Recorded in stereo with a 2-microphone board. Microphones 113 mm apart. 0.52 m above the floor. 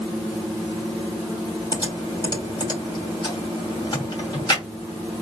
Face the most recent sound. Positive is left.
turn(degrees=40)  # may be behind; listen again after turning